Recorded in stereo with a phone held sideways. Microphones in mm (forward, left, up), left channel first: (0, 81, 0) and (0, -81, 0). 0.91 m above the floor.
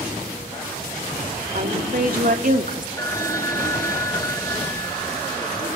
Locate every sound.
1.6 s a woman speaking: 65° right (ahead or behind), 3.5 m; by 2.9 s 50° right (ahead or behind), 1.9 m
3.0 s a phone ringing: 20° left (ahead or behind), 1.9 m